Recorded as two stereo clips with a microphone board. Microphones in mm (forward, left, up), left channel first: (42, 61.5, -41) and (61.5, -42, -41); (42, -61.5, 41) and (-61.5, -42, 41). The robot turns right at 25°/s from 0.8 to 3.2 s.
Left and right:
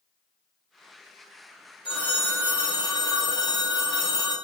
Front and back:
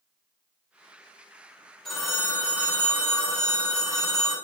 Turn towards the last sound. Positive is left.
turn(degrees=110)